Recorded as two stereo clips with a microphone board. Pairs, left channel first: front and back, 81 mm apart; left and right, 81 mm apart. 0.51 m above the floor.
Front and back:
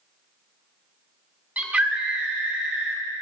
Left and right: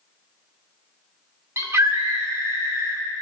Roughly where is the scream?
Behind right.